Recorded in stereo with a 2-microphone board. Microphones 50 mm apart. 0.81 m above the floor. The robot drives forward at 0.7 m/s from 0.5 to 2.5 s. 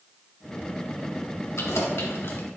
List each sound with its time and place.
1.6 s keys jangling: 65° left (ahead or behind), 1.4 m; by 2.5 s 45° left (ahead or behind), 1.8 m